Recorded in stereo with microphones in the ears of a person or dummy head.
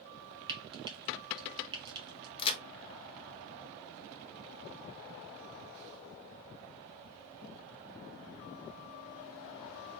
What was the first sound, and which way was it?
Frying, 25° right (ahead or behind).